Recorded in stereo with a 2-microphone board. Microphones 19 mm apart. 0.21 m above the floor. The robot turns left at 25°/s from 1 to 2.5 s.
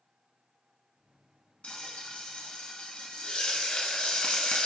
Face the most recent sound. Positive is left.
turn(degrees=60)  # may be behind; listen again after turning